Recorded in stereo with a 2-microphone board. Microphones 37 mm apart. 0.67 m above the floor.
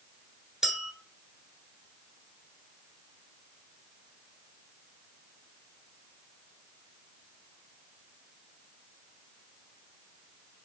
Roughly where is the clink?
Centre.